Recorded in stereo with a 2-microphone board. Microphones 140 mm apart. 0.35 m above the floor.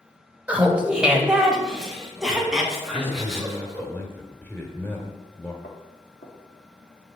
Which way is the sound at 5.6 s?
85° left.